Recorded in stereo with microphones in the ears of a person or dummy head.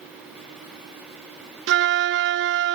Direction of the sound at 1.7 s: 55° right (ahead or behind).